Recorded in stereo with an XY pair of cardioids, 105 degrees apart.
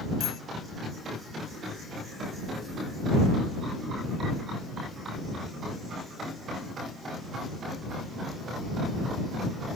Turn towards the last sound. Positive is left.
turn(degrees=70)